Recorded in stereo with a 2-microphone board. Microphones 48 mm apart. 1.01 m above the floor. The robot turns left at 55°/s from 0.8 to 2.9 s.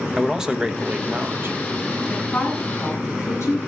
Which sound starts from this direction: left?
A woman speaking, at 2.1 s.